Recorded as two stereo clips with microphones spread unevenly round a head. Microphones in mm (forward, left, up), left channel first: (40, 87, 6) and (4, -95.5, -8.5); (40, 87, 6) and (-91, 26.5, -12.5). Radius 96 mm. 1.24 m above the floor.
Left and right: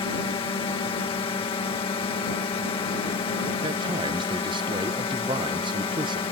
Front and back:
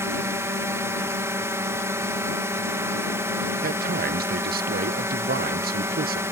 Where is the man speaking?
170° right.